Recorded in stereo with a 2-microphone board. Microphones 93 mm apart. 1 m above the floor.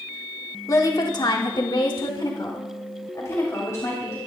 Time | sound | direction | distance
0.7 | a woman speaking | 35° left (ahead or behind) | 1.3 m